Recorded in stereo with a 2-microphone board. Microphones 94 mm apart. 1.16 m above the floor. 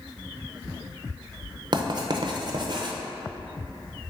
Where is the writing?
50° right (ahead or behind), 0.5 m.